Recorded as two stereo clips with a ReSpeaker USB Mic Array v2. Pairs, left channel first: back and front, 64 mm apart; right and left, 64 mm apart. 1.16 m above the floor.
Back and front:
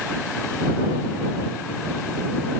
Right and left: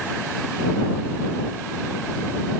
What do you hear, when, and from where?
Only background noise.